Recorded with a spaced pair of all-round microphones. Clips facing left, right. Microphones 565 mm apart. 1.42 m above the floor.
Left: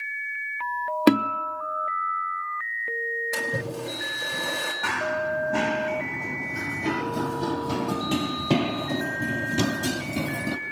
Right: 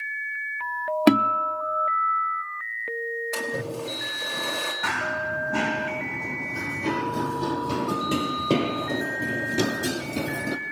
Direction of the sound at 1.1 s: 10° right (ahead or behind).